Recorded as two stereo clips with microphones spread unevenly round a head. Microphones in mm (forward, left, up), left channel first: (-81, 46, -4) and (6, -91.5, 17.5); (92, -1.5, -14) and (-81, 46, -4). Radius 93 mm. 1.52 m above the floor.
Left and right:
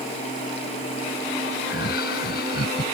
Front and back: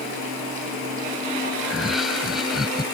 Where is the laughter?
75° left.